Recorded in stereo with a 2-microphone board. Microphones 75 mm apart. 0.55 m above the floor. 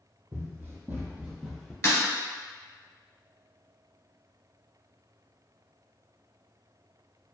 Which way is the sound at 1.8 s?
45° left (ahead or behind).